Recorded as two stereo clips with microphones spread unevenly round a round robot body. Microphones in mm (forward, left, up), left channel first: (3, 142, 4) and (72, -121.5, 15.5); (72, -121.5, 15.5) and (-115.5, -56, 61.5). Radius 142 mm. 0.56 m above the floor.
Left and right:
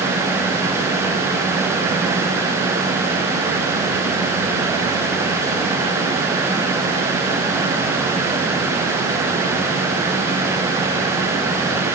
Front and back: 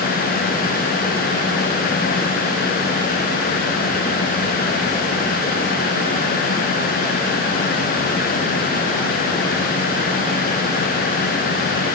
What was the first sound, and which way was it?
Only background noise.